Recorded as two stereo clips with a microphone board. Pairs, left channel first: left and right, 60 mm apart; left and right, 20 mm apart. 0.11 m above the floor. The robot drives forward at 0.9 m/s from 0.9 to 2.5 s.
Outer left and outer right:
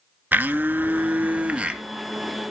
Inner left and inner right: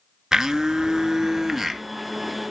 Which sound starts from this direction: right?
A blender, at 0.3 s.